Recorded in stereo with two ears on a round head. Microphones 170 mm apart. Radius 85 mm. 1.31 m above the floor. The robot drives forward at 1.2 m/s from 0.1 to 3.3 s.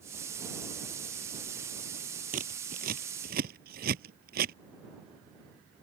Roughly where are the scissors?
Right.